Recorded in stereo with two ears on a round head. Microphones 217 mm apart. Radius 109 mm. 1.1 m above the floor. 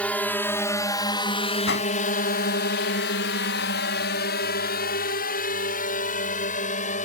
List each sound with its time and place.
0.0 s a drone: 5° left (ahead or behind); by 7.0 s 30° left (ahead or behind)
1.7 s a whoosh: 50° left (ahead or behind)